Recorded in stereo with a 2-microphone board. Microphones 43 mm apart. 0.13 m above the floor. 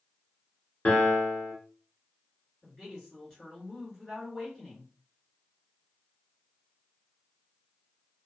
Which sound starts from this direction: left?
A piano, at 0.8 s.